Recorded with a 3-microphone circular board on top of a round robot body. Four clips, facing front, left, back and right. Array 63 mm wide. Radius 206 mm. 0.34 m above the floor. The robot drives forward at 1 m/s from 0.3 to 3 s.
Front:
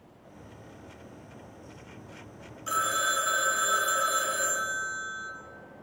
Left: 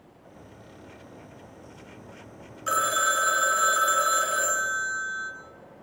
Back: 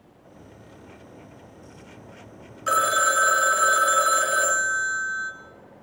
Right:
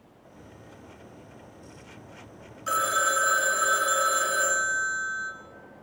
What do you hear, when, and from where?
2.7 s a phone ringing: 175° left, 1.5 m